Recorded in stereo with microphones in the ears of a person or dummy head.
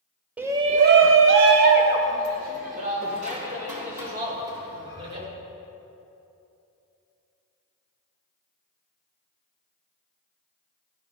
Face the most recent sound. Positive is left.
turn(degrees=-40)  # may be behind; listen again after turning